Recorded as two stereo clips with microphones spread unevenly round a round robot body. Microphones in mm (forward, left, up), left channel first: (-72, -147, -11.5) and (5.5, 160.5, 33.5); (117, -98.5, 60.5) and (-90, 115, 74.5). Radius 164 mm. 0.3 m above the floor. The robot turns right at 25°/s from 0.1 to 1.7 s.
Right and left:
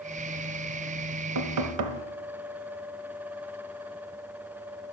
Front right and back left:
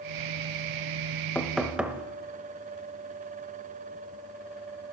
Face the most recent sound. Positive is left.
turn(degrees=45)